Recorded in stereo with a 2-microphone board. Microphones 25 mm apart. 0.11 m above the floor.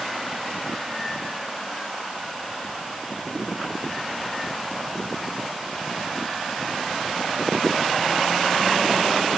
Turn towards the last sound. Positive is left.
No sound to turn to.